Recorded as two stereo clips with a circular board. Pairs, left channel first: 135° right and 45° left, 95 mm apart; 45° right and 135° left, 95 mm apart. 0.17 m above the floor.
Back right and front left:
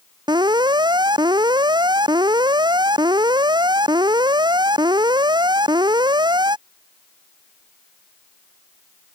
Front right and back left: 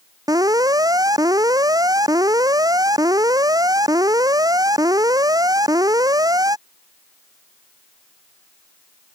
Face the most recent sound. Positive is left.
turn(degrees=85)